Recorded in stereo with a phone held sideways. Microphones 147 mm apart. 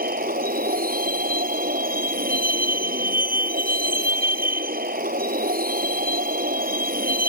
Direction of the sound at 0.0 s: 85° right.